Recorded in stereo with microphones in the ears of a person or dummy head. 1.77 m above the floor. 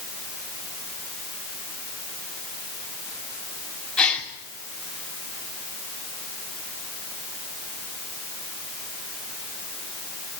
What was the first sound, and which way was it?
A gasp, 5° left (ahead or behind).